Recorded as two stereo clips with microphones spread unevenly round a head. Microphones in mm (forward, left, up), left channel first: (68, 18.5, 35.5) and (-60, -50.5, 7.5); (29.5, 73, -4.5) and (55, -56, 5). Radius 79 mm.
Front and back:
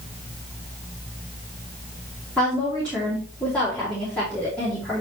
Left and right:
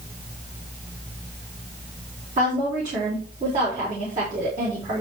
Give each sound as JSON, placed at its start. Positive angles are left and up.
{"t": 2.4, "sound": "a woman speaking", "azimuth_deg": -55, "distance_m": 4.0}